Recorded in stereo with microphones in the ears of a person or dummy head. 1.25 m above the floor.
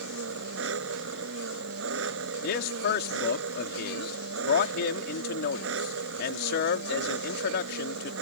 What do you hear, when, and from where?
0.0 s an engine running: 75° right (ahead or behind)
2.4 s a man speaking: 50° left (ahead or behind)